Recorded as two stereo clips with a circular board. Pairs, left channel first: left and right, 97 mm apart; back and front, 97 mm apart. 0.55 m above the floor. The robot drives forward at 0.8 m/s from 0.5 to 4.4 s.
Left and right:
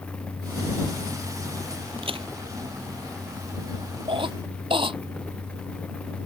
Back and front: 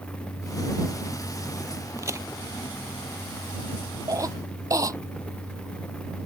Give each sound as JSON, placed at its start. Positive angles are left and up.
{"t": 2.0, "sound": "a crack", "azimuth_deg": -60}
{"t": 4.1, "sound": "a cough", "azimuth_deg": -55}